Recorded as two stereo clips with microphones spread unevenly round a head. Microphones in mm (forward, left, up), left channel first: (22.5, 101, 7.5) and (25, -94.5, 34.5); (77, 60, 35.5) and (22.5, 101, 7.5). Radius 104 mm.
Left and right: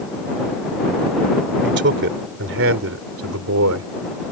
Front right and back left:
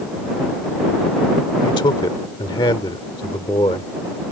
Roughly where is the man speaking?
Ahead right.